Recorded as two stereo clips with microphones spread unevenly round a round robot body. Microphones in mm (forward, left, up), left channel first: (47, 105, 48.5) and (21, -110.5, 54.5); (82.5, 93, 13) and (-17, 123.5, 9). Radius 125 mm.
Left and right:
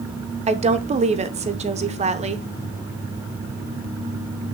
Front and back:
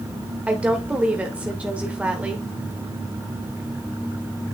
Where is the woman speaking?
130° right, 0.9 m.